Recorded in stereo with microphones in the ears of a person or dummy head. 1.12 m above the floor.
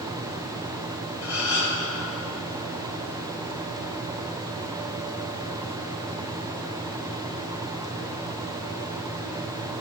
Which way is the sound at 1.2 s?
60° left (ahead or behind).